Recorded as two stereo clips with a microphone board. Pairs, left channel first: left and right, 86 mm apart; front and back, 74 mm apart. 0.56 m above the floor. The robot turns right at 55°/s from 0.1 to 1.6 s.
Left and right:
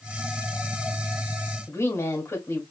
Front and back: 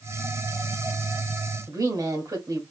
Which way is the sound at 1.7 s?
150° left.